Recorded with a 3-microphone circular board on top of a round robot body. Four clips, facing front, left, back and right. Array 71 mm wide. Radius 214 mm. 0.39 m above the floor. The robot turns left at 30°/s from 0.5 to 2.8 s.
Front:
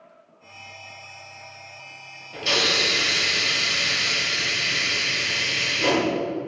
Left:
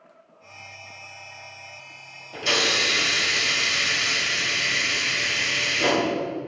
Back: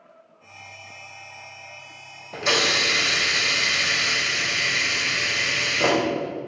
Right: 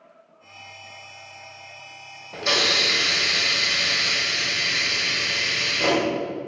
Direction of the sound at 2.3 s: 155° right.